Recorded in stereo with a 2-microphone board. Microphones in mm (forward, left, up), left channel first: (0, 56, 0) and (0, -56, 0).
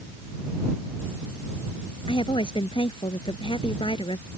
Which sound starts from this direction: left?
A woman speaking, at 2.1 s.